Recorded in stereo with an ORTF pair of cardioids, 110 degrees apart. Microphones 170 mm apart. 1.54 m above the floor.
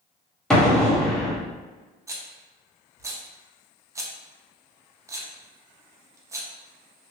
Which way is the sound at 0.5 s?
5° left.